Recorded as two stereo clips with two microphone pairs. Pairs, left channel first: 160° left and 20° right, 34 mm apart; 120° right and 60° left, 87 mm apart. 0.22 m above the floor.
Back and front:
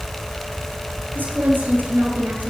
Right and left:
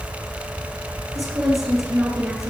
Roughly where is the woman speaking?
Ahead.